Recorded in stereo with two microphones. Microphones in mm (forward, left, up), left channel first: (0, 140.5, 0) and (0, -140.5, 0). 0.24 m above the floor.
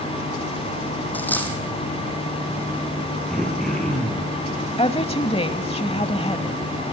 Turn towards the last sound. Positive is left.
turn(degrees=20)  # may be behind; listen again after turning